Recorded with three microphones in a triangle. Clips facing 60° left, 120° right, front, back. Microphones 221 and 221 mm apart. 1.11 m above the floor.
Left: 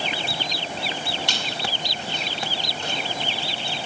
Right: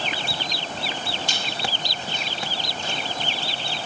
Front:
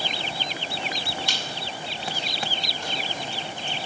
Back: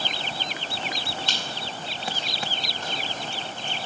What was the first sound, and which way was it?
A squeak, 80° left.